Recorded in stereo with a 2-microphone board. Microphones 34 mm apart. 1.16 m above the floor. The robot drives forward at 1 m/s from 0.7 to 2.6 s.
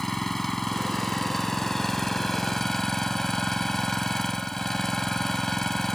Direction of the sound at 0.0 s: 10° left (ahead or behind).